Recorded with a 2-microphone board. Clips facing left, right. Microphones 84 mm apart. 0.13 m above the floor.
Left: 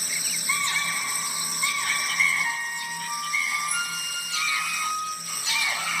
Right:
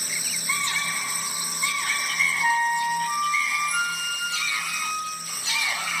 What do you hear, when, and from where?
2.4 s a flute: 50° right (ahead or behind), 2.5 m